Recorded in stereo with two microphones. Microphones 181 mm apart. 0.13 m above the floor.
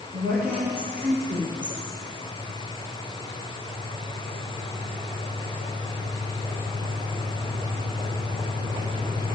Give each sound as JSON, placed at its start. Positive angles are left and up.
{"t": 0.1, "sound": "a woman speaking", "side_deg": -55, "distance_m": 4.0}